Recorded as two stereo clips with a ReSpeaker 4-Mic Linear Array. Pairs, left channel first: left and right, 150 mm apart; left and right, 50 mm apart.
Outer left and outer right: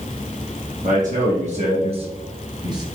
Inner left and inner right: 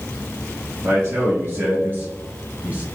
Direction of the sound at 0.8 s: 60° right (ahead or behind).